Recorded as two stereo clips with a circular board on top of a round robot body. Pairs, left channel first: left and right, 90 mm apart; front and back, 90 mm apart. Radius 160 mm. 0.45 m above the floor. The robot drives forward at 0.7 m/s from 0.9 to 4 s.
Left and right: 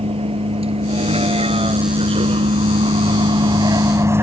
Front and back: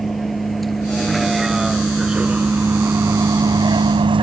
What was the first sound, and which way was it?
A vehicle, 90° right.